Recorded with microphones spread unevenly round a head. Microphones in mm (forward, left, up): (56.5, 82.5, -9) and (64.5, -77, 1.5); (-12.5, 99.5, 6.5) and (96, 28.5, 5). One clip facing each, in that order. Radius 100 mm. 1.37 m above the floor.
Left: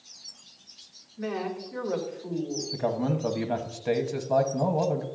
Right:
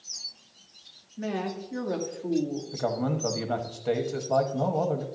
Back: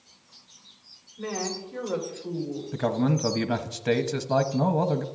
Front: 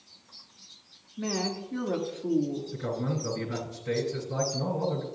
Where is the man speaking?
175° left, 0.9 m.